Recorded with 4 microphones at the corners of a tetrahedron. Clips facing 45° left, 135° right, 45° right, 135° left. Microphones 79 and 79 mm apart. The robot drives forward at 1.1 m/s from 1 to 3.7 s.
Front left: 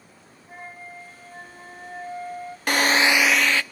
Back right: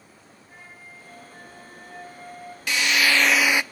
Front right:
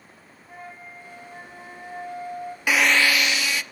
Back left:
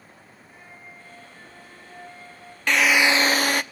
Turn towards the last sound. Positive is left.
turn(degrees=160)